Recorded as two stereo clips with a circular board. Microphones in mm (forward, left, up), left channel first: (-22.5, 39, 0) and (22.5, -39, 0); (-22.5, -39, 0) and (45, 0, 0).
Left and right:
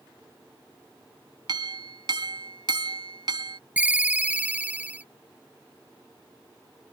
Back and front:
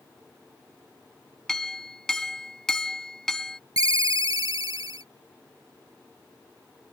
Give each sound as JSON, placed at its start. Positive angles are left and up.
{"t": 1.5, "sound": "a clink", "azimuth_deg": -70}
{"t": 3.8, "sound": "a ringtone", "azimuth_deg": 10}